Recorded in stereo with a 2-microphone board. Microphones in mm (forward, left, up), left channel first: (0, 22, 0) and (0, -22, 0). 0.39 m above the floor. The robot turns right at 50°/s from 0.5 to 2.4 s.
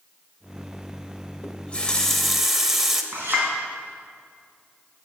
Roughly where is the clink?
Right.